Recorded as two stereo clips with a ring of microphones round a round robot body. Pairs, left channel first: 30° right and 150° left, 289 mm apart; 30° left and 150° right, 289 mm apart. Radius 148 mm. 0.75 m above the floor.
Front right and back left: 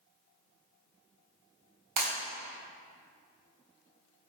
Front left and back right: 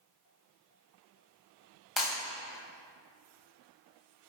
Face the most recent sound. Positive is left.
turn(degrees=120)